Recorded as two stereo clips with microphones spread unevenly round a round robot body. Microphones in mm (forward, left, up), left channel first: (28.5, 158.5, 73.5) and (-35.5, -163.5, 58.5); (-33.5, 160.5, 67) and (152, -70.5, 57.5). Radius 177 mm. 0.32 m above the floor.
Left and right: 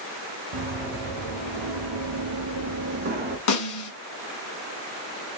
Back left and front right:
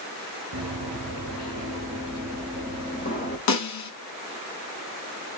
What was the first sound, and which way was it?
Running footsteps, 95° right.